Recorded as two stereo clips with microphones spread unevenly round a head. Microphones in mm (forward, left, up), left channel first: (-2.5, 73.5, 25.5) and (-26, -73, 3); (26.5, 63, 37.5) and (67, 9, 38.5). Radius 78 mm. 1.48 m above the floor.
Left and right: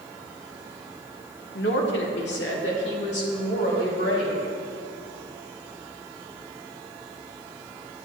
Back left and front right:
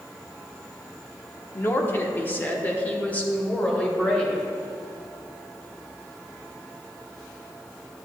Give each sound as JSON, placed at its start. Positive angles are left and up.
{"t": 1.6, "sound": "a woman speaking", "azimuth_deg": 80, "distance_m": 1.0}